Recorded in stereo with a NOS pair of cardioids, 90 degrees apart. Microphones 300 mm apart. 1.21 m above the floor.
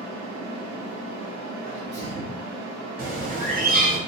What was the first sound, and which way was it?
A fan, 70° right.